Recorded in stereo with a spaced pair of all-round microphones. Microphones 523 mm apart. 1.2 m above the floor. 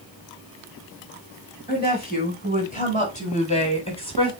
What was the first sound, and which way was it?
A woman speaking, 15° left (ahead or behind).